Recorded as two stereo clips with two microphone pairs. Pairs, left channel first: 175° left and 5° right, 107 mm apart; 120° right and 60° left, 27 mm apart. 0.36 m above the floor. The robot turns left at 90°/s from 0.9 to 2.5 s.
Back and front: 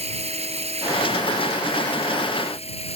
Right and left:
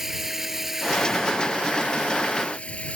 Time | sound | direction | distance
0.0 | running water | 20° right | ?